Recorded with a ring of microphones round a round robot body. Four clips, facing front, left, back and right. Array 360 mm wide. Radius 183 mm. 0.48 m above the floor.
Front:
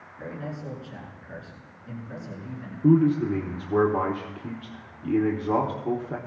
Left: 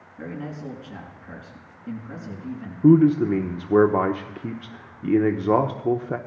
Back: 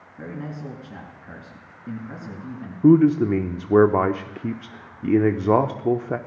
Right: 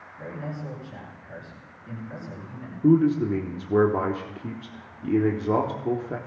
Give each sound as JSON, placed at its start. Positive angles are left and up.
{"t": 0.2, "sound": "a man speaking", "azimuth_deg": 150, "distance_m": 5.0}
{"t": 2.8, "sound": "a man speaking", "azimuth_deg": 155, "distance_m": 0.9}